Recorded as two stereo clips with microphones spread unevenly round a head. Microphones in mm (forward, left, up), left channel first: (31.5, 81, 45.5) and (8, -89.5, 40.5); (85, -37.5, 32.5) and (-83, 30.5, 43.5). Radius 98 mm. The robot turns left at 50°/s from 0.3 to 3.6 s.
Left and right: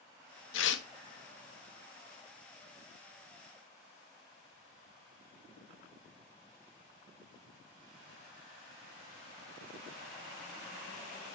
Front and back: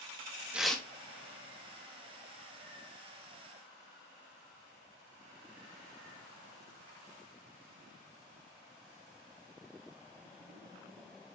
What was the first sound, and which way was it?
Tearing paper, 75° left.